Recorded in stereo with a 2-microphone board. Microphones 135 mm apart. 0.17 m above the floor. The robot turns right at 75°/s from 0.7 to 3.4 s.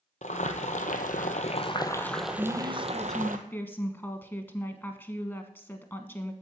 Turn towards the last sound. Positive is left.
turn(degrees=30)